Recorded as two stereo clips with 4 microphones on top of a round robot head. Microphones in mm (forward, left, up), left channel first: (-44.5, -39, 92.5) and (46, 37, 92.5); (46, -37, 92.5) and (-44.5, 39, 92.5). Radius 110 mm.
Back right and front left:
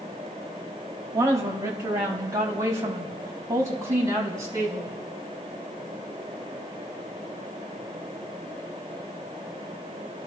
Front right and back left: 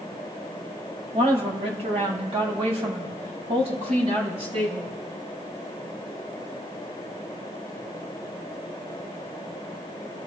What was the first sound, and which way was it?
A woman speaking, 105° left.